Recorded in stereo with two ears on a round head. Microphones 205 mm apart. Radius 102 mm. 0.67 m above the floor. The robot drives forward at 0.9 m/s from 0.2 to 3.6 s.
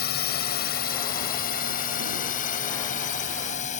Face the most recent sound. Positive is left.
turn(degrees=35)  # may be behind; listen again after turning